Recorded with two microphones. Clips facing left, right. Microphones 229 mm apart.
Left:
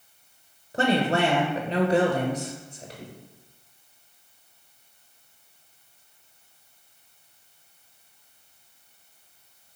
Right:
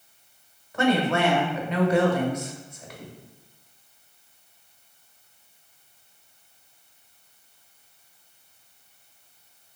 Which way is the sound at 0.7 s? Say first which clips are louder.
Right 1 dB; 30° left (ahead or behind).